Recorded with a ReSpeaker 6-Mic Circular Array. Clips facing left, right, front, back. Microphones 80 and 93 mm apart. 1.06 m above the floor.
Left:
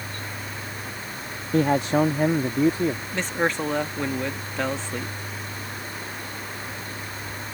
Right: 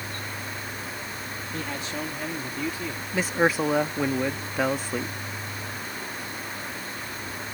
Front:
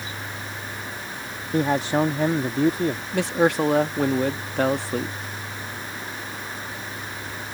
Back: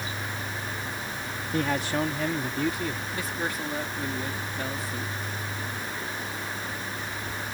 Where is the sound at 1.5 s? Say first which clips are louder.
Left 14 dB, front 6 dB; 65° left; by 3.0 s 45° left.